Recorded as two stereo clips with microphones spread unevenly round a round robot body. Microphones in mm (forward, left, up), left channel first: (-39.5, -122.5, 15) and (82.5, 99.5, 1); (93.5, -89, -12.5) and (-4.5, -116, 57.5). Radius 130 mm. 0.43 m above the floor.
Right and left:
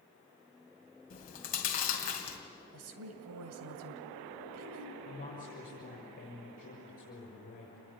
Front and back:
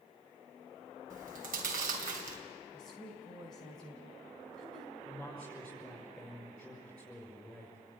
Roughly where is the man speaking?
Ahead right.